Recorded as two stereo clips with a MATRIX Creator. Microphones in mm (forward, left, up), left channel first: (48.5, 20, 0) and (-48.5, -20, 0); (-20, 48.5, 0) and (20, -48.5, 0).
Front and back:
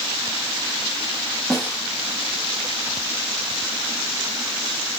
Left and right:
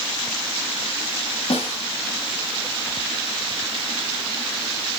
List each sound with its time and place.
1.5 s a snare drum: 110° left, 5 m